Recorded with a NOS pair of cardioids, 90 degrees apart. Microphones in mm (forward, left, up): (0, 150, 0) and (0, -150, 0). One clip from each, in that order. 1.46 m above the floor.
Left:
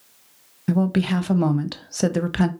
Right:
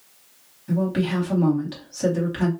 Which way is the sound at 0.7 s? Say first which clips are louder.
Left 2 dB; 65° left.